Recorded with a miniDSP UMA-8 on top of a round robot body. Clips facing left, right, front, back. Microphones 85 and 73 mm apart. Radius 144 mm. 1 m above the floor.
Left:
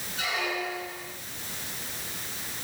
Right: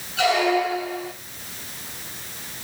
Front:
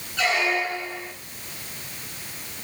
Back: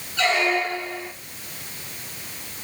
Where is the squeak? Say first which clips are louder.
Right 12 dB, back 2 dB; 85° right, 3 m.